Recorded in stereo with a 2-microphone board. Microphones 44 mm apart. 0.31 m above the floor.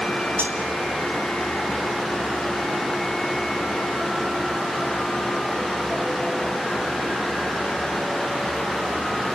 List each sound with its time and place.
0.4 s cutlery clinking: 60° right (ahead or behind), 2.5 m